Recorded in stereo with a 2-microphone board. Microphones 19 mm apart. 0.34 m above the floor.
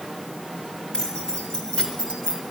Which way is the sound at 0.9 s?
60° left (ahead or behind).